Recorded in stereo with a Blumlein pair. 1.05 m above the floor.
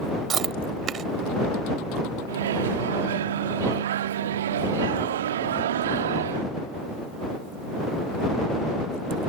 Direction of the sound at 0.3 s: 25° right.